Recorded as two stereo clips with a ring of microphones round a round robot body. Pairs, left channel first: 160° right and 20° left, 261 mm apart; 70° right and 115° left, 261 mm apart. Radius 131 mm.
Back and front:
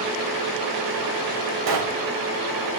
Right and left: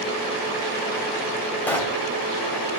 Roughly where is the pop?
Ahead.